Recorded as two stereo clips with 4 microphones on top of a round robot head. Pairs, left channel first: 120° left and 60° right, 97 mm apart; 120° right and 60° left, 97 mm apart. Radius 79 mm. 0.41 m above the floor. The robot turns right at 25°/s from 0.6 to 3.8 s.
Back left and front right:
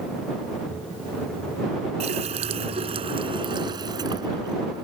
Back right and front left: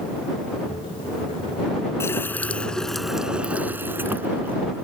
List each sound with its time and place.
2.0 s a running tap: 55° right; by 4.8 s 10° right